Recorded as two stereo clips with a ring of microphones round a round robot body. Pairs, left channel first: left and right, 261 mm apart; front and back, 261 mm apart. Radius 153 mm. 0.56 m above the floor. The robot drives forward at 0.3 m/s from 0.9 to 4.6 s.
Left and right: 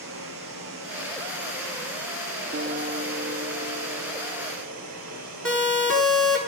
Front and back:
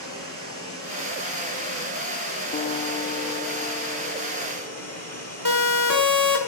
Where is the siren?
Straight behind, 6.5 m.